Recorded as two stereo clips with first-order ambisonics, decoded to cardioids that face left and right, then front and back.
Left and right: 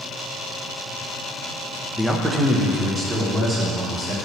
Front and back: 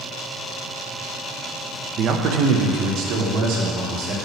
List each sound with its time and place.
2.0 s a man speaking: straight behind, 0.7 m; by 4.2 s 160° right, 3.5 m